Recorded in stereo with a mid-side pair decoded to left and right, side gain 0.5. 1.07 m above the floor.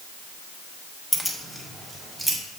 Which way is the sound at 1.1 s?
5° left.